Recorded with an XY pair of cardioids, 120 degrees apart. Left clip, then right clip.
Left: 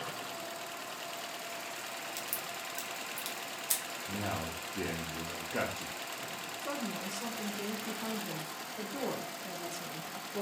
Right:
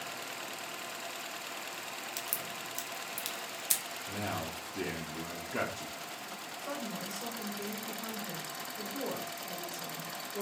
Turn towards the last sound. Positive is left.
turn(degrees=20)